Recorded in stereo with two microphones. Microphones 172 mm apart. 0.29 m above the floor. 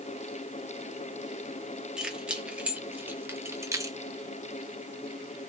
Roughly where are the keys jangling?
Centre.